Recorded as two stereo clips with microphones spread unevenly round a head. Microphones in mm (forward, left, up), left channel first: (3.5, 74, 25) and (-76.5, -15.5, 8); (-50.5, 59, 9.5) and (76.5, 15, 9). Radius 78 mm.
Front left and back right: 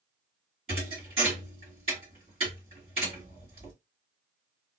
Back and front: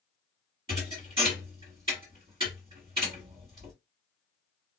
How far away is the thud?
About 2.5 m.